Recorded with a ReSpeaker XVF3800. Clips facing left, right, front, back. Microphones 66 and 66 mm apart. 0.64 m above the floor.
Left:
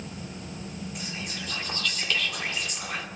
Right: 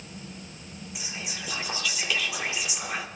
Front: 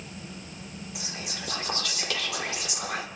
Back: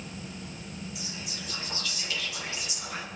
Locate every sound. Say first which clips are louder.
0.9 s whispering: left 2 dB, front 2 dB; 5° right, 1.4 m